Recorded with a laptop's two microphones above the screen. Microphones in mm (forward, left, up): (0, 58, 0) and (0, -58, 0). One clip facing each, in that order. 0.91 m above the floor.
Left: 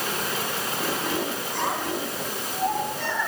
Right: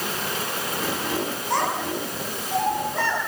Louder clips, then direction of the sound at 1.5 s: Right 5 dB; 85° right.